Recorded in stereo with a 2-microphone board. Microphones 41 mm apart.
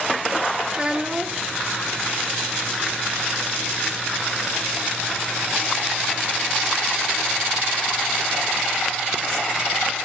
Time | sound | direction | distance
0.7 | a child speaking | 20° right (ahead or behind) | 0.7 m